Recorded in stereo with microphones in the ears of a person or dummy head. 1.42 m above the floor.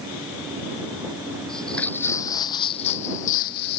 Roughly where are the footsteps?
Centre.